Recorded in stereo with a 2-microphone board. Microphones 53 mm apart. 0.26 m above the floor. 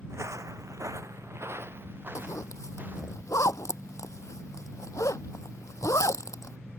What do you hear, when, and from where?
0.1 s footsteps: 55° right (ahead or behind); by 3.1 s 35° right (ahead or behind)
2.1 s a zipper: 80° left